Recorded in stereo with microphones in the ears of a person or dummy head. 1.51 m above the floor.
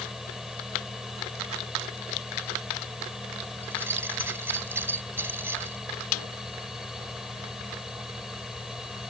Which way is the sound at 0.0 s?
5° right (ahead or behind).